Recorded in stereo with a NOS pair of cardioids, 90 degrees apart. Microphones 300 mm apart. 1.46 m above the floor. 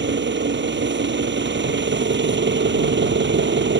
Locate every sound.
0.0 s an engine running: 35° right